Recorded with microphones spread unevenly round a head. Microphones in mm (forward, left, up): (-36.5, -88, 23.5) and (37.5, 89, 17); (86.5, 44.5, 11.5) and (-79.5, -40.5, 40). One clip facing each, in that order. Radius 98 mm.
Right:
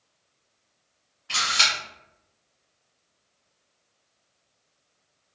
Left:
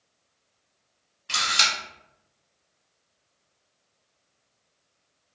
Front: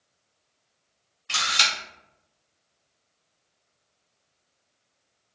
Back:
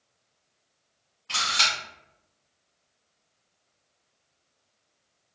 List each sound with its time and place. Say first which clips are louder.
1.3 s a camera shutter: even, front 1 dB; 100° left, 1.7 m